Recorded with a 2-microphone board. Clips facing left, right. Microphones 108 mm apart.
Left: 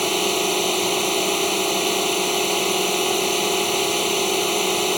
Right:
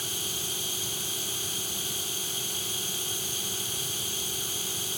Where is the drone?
75° left (ahead or behind).